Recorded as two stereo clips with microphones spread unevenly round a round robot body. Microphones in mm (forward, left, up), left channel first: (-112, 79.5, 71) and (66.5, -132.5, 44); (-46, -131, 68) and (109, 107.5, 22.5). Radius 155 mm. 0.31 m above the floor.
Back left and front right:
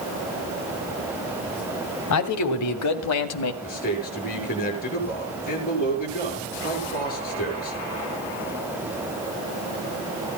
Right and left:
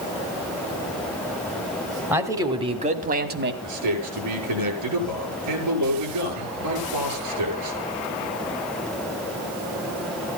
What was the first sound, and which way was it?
A man speaking, 135° left.